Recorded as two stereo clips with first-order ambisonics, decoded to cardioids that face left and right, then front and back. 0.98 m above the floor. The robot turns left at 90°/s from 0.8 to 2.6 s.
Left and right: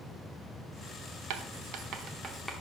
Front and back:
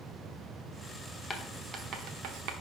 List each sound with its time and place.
1.3 s writing: 70° right, 0.9 m; by 2.5 s straight behind, 0.9 m